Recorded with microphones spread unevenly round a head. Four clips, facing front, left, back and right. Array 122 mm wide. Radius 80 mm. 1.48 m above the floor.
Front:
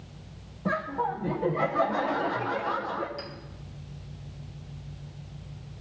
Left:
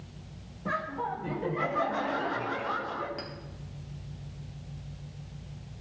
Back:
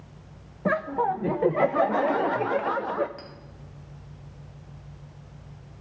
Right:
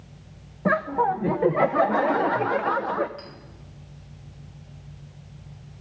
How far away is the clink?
About 2.5 m.